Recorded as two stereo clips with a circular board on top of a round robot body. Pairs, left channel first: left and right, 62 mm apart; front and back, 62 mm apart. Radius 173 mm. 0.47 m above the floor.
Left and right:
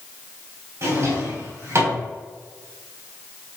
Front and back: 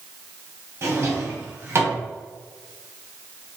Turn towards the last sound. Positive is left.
turn(degrees=-135)